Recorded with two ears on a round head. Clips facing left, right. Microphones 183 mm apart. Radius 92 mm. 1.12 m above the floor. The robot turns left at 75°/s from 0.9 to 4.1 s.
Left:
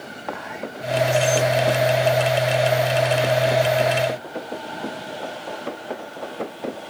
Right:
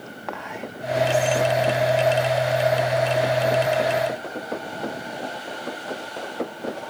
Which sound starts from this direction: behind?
Whispering, at 0.3 s.